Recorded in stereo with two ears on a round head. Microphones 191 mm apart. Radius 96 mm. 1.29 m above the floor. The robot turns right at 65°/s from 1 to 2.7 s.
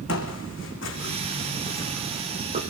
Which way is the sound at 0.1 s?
65° left (ahead or behind).